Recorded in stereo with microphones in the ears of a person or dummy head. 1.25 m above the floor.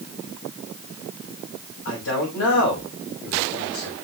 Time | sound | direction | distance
1.9 | a man speaking | 75° left (ahead or behind) | 5.5 m